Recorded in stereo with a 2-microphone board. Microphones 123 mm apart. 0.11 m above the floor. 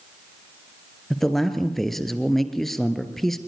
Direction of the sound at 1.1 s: Centre (ahead or behind).